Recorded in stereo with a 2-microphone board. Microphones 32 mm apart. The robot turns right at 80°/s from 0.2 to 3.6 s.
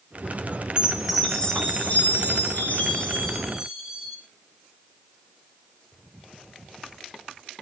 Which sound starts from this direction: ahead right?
A chime, at 0.8 s.